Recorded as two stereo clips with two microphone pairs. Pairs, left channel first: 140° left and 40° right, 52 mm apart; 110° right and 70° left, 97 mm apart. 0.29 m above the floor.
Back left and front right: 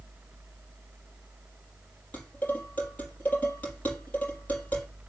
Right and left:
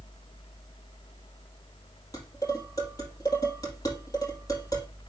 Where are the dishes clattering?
160° right, 5 m.